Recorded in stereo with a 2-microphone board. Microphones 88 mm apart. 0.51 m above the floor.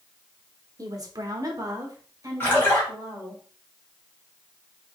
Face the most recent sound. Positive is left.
turn(degrees=25)  # may be behind; listen again after turning